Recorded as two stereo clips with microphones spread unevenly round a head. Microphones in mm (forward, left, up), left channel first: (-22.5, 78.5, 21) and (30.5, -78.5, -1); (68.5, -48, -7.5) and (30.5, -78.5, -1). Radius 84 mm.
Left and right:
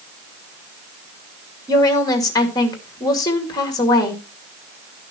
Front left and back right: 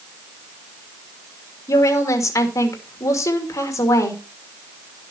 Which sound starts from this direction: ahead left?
A woman speaking, at 1.7 s.